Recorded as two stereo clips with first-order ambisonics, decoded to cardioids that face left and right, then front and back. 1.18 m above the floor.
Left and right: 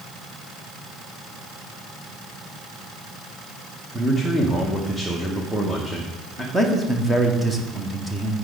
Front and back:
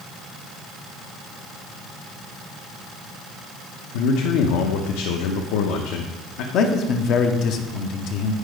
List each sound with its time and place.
3.9 s a man speaking: straight ahead, 0.8 m
6.5 s a man speaking: 5° right, 0.8 m